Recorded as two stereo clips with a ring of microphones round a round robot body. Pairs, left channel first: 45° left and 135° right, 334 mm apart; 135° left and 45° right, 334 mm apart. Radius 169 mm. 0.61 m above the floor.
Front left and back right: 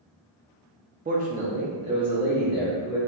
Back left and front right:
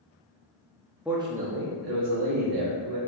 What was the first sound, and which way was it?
A man speaking, 130° right.